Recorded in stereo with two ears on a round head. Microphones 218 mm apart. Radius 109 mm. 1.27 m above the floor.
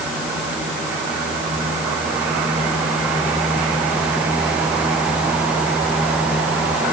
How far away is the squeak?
I don't hear a squeak.